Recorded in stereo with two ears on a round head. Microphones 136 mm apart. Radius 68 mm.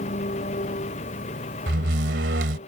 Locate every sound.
0.0 s an engine running: 45° left (ahead or behind)
1.7 s a door slam: 85° right